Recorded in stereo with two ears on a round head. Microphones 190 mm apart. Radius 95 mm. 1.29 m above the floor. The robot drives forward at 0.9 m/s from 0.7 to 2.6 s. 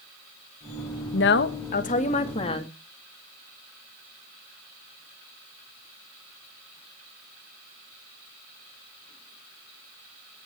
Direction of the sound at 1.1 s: 65° left (ahead or behind).